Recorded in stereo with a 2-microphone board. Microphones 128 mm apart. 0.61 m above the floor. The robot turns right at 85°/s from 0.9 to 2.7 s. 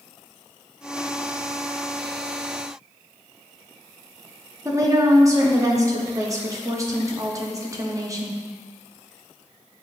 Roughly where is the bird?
No bird in this recording.